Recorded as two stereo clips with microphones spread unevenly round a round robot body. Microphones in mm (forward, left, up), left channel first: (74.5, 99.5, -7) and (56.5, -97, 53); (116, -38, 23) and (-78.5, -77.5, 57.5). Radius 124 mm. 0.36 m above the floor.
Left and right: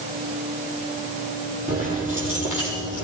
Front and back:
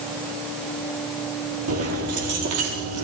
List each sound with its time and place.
1.7 s keys jangling: 175° right, 7 m; by 3.0 s straight behind, 8 m